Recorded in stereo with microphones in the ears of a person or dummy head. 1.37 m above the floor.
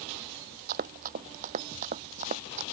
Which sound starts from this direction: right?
Running footsteps, at 0.7 s.